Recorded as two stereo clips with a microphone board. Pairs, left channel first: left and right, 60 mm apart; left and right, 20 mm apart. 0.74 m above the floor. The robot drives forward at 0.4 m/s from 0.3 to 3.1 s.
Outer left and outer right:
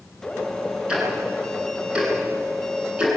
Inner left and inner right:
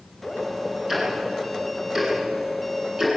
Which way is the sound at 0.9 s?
20° right (ahead or behind).